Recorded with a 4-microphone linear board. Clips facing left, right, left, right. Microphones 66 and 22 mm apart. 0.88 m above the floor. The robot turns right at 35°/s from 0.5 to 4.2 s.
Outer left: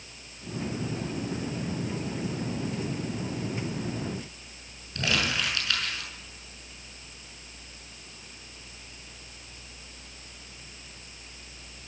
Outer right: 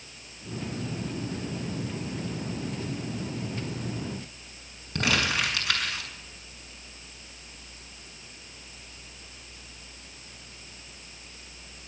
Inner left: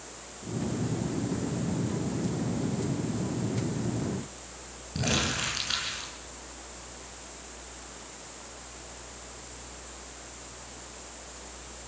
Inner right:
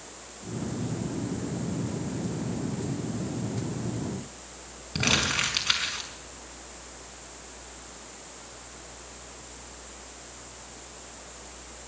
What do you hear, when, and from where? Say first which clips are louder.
5.0 s crumpling: outer right 2 dB, inner right 4 dB; 75° right (ahead or behind), 5.5 m